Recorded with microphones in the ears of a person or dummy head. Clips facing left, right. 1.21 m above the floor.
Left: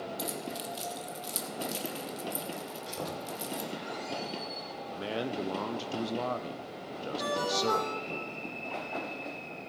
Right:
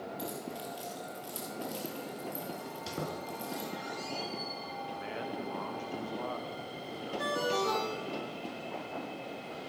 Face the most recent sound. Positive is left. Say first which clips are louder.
# even
turn(degrees=-15)  # may be behind; listen again after turning